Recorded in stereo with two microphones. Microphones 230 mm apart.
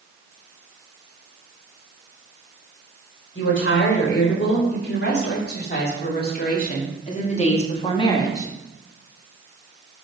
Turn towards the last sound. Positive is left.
turn(degrees=10)  # may be behind; listen again after turning